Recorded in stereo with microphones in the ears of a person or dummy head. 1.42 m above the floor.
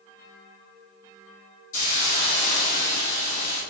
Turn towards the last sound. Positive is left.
turn(degrees=45)  # may be behind; listen again after turning